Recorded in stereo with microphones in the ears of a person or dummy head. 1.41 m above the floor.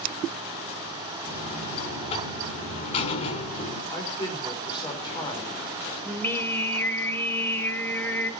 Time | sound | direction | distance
1.3 | a buzzer | 35° left (ahead or behind) | 3.5 m
3.9 | a man speaking | 25° left (ahead or behind) | 4 m
6.0 | singing | 10° left (ahead or behind) | 1.6 m